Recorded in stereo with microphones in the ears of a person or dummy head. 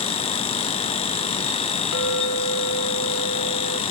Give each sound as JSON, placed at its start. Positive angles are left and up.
{"t": 1.9, "sound": "a clink", "side_deg": 80, "distance_m": 2.0}